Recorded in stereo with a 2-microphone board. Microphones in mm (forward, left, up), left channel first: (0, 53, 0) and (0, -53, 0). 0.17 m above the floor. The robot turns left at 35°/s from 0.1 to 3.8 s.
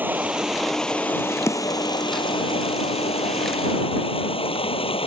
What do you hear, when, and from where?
0.0 s running water: 160° right; by 5.1 s 70° left
1.5 s a snare drum: 30° left (ahead or behind); by 1.8 s 40° left (ahead or behind)